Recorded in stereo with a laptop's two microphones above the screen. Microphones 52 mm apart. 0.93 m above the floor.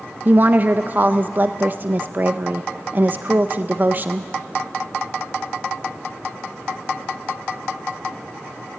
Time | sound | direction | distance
0.2 | a woman speaking | 40° right (ahead or behind) | 0.5 m